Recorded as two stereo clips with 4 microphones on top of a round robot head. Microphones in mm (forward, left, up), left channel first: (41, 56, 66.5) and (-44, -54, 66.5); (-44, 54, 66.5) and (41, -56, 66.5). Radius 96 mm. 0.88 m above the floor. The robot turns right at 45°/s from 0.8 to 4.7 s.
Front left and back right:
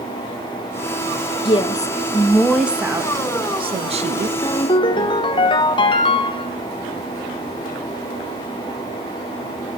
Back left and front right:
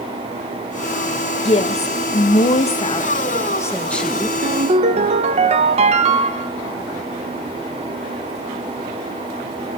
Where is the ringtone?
20° right, 1.2 m; by 6.5 s 5° right, 1.2 m.